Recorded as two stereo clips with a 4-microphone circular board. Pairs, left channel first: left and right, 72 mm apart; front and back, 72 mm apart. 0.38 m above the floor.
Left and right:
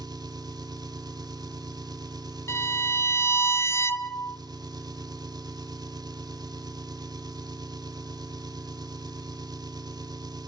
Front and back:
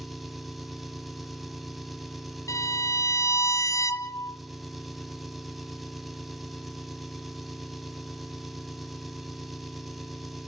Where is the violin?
40° left, 1.4 m.